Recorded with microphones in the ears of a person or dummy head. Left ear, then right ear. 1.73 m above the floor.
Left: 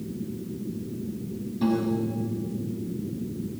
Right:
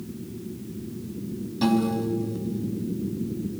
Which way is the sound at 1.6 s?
35° right (ahead or behind).